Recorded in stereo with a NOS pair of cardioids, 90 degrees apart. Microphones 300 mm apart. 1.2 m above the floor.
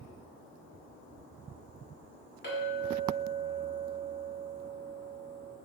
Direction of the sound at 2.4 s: 35° left.